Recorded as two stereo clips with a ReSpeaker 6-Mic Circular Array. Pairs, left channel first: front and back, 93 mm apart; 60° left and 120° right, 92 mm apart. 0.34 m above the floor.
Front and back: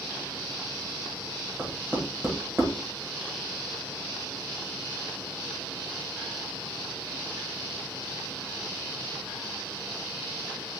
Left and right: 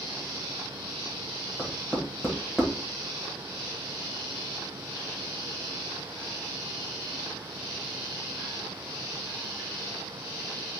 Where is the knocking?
155° left, 1.1 m.